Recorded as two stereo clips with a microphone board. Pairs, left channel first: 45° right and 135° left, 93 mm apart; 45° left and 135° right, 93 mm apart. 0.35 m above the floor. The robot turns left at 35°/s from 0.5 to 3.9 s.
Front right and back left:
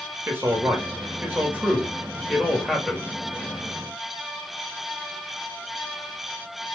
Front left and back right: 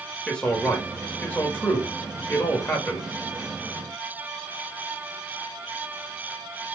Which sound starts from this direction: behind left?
A man speaking, at 0.3 s.